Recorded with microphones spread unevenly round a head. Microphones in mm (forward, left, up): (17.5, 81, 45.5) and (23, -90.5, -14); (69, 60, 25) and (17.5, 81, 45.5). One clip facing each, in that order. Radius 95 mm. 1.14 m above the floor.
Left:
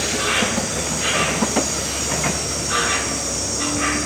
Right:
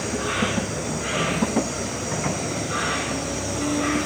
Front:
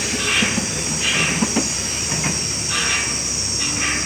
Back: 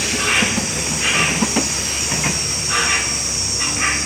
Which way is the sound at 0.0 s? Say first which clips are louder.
Left 2 dB, back 2 dB; 90° left.